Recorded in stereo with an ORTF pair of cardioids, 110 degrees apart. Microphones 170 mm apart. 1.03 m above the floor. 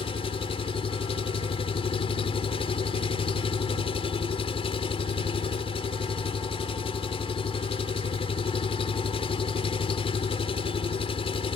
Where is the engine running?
35° left.